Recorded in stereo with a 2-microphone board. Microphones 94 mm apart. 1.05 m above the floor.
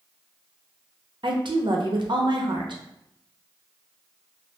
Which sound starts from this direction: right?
A woman speaking, at 1.2 s.